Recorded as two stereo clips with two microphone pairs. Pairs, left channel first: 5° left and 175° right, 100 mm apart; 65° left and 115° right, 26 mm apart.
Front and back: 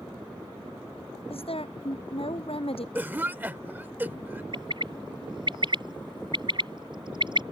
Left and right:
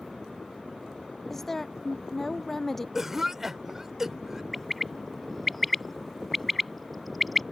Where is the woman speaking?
20° right.